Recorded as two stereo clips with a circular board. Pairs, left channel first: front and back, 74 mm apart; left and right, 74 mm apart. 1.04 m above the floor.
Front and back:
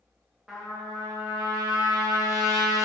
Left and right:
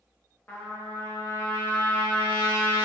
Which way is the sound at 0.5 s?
110° left.